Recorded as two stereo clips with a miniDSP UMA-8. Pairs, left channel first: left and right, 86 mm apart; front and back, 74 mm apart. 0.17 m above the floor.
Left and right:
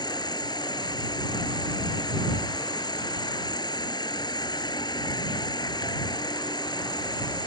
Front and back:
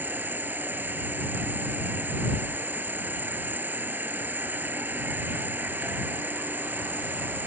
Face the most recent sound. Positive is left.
turn(degrees=120)